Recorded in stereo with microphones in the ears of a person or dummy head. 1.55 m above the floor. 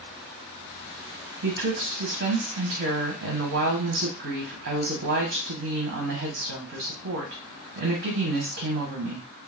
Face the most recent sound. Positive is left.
turn(degrees=-60)  # may be behind; listen again after turning